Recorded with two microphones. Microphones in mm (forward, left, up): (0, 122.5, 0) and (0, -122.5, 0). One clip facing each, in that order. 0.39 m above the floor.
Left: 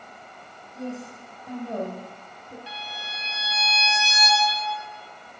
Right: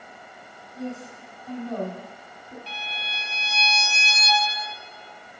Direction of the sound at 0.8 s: 30° left (ahead or behind).